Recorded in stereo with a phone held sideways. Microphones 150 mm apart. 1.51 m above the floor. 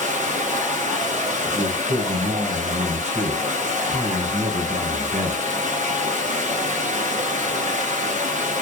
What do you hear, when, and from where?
0.0 s running water: 60° right (ahead or behind), 0.8 m
1.5 s a man speaking: 65° right (ahead or behind), 1.1 m